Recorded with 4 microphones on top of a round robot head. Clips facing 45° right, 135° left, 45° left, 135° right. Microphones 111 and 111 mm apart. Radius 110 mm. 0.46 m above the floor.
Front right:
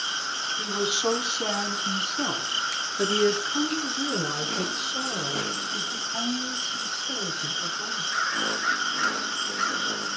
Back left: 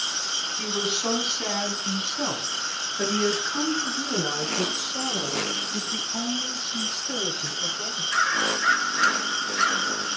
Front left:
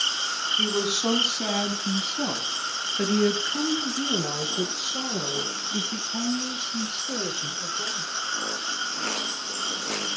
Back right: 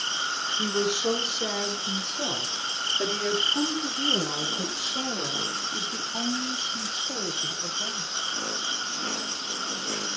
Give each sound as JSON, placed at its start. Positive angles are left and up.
{"t": 0.6, "sound": "a woman speaking", "azimuth_deg": 30, "distance_m": 6.0}